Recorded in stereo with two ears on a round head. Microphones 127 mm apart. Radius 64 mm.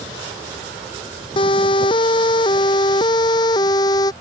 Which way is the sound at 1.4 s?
35° left (ahead or behind).